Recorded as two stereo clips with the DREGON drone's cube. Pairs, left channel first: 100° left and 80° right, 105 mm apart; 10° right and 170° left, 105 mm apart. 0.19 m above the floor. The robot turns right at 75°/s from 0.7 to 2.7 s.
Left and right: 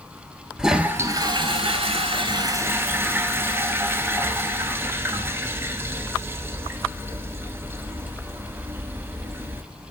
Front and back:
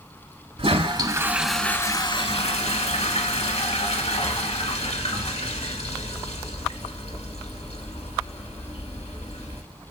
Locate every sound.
0.6 s a toilet flushing: 160° right, 0.6 m; by 9.6 s 10° right, 0.6 m